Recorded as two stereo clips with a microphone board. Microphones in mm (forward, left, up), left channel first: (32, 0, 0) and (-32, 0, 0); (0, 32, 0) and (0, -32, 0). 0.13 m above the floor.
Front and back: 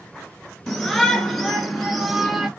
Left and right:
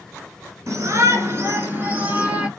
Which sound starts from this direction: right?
A shout, at 0.7 s.